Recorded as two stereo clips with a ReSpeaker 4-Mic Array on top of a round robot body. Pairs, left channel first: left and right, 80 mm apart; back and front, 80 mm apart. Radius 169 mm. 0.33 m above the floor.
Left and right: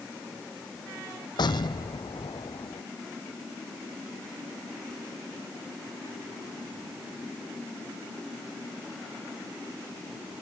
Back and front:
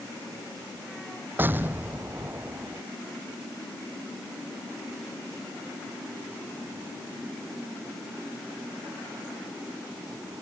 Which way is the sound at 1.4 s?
65° left.